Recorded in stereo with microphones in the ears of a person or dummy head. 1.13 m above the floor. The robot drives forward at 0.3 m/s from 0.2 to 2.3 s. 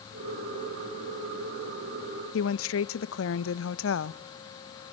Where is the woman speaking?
65° left (ahead or behind), 0.8 m.